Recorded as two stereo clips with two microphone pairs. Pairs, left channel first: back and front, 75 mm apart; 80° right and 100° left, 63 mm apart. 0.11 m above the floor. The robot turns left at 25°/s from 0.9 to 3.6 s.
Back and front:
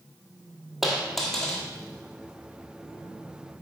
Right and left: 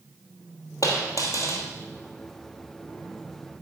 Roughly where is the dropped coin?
Right.